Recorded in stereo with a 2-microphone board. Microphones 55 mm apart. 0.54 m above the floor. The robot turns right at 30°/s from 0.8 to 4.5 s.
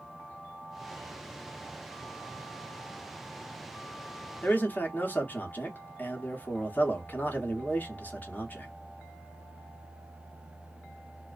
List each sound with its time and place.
4.4 s a man speaking: 35° left (ahead or behind), 0.8 m